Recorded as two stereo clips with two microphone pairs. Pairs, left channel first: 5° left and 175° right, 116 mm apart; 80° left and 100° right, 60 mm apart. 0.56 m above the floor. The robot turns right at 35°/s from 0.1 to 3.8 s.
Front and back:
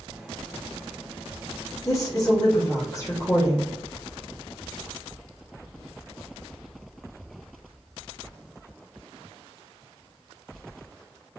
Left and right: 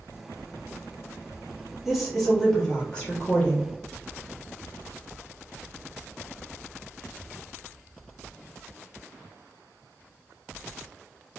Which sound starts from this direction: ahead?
A woman speaking, at 1.9 s.